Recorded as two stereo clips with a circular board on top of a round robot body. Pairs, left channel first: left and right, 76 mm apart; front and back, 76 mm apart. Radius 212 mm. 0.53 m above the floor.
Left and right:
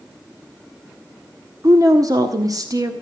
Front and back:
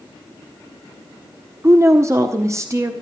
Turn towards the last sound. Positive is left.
turn(degrees=-130)